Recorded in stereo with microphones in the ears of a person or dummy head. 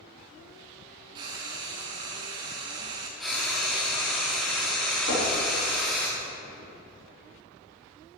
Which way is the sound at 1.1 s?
25° right (ahead or behind).